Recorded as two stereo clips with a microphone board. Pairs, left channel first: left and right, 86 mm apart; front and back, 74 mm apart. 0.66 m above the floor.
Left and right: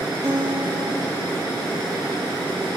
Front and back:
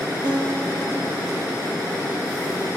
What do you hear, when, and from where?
0.2 s a guitar: 150° right, 6.5 m